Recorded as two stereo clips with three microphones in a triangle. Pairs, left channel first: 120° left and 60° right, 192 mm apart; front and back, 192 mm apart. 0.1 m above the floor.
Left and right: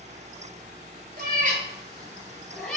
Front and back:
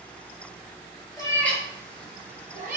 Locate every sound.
1.2 s a cat meowing: 60° right, 0.7 m; by 2.8 s 155° right, 0.9 m